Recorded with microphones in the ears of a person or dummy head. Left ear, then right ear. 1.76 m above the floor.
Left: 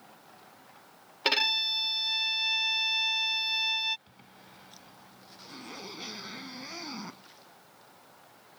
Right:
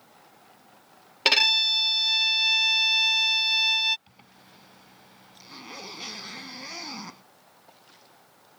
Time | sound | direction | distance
1.2 | a violin | 20° right (ahead or behind) | ?
4.1 | a zipper | 20° right (ahead or behind) | ?